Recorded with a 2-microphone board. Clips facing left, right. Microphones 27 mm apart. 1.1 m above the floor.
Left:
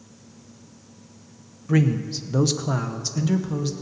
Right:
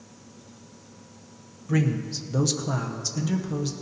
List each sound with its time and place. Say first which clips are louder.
1.7 s a man speaking: left 4 dB; 15° left (ahead or behind), 0.6 m; by 3.7 s 10° left (ahead or behind), 1.1 m